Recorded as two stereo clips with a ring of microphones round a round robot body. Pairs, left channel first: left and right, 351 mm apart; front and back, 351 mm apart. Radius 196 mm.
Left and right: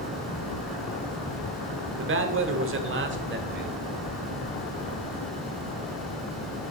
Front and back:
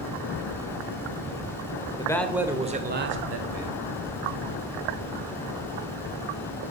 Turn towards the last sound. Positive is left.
turn(degrees=-150)